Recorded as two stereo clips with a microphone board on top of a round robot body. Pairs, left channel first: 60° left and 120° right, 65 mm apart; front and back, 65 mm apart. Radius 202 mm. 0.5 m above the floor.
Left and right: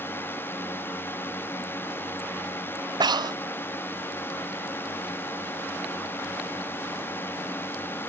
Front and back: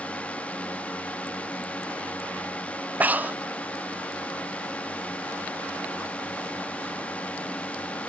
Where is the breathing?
115° right.